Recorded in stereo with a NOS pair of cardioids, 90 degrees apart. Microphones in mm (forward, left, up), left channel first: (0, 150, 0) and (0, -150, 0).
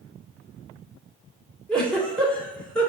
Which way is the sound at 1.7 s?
5° left.